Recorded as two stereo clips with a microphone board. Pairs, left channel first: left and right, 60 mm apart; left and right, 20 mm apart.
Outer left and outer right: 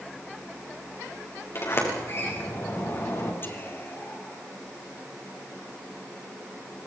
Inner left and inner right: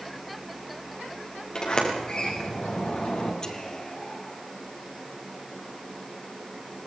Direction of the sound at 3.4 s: 35° left (ahead or behind).